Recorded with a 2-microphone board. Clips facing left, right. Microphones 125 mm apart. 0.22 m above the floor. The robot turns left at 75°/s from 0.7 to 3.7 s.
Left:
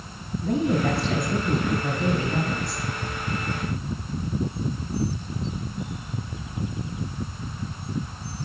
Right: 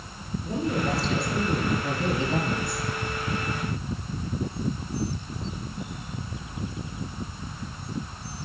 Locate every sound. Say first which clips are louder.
0.4 s a woman speaking: left 5 dB; 90° left, 3.5 m; by 2.9 s 70° right, 3.5 m